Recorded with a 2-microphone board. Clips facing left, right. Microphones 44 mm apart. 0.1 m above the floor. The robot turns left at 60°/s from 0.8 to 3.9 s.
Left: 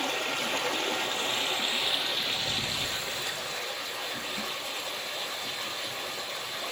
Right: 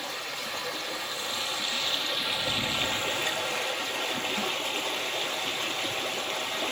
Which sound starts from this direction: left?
Running water, at 0.0 s.